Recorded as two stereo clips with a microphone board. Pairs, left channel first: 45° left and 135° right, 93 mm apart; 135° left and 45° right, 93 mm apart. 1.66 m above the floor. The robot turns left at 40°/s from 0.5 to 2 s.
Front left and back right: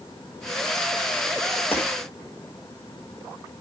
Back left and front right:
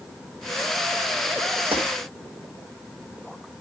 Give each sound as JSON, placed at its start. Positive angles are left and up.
{"t": 1.7, "sound": "breaking glass", "azimuth_deg": -25, "distance_m": 7.5}